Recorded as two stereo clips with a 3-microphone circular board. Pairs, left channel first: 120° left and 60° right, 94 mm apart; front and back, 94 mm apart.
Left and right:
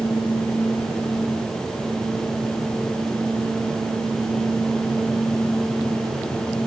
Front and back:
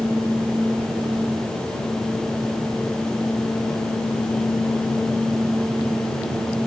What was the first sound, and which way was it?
Only background noise.